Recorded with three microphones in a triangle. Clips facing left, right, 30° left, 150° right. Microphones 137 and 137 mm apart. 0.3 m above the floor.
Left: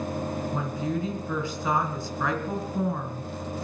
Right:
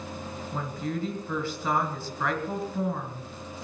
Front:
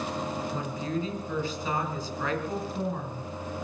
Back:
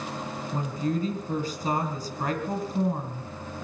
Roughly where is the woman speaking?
Behind.